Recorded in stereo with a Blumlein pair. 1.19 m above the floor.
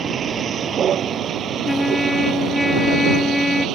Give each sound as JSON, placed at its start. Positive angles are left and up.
{"t": 0.0, "sound": "a vehicle", "azimuth_deg": -20}
{"t": 1.6, "sound": "a trumpet", "azimuth_deg": 5}